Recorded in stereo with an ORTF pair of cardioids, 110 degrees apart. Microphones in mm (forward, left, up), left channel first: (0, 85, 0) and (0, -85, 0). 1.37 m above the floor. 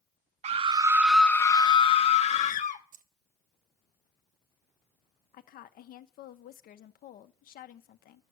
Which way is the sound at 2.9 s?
55° right.